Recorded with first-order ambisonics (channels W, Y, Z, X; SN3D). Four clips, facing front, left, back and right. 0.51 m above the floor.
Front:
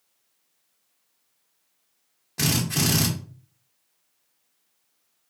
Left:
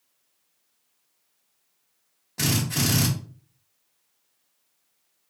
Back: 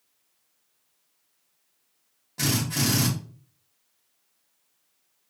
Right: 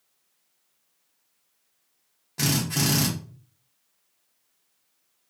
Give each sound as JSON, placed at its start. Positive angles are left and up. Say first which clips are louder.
{"t": 2.4, "sound": "a drill", "louder": "even, front 2 dB", "azimuth_deg": 0, "distance_m": 1.0}